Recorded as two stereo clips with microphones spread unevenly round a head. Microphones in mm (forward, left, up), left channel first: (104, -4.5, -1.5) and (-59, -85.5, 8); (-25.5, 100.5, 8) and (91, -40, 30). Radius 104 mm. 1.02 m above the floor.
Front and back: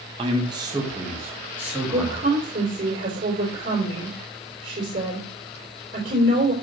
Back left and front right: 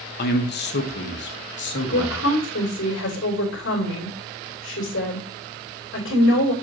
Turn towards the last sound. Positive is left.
turn(degrees=155)